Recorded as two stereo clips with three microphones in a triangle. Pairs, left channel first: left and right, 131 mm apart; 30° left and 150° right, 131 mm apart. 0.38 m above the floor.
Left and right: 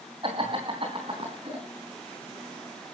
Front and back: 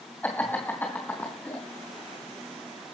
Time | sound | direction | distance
0.2 | laughter | 45° right | 2.5 m